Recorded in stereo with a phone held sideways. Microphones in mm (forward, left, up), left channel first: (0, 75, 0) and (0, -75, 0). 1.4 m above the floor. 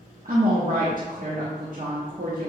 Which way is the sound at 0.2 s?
60° right (ahead or behind).